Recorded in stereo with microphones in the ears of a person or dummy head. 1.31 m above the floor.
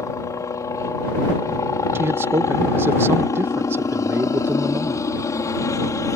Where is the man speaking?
15° right (ahead or behind).